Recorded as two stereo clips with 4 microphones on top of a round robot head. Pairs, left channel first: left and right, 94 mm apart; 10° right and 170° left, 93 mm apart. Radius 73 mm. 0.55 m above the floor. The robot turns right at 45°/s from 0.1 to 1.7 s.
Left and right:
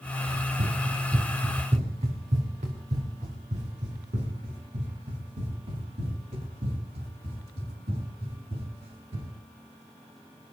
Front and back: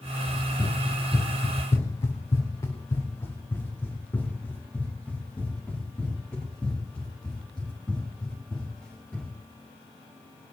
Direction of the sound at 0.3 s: 80° right.